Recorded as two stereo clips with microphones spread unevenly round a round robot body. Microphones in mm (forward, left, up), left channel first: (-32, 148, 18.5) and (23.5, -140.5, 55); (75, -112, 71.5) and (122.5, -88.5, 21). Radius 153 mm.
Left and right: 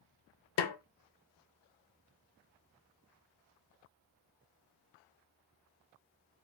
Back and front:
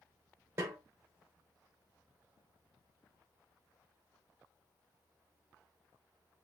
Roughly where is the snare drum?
Left.